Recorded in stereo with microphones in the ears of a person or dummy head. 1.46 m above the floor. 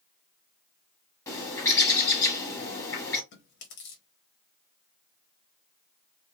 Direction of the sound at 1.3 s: 15° left (ahead or behind).